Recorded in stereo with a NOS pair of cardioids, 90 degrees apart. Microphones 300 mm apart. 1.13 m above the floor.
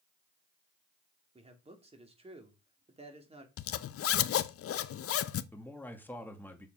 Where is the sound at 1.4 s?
20° right, 3 m.